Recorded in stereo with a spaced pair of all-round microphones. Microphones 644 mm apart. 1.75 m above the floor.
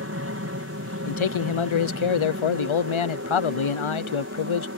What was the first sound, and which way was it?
An aircraft, 20° right (ahead or behind).